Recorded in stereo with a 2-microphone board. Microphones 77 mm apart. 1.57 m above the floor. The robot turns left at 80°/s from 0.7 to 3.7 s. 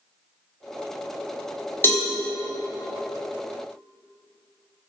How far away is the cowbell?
About 0.7 m.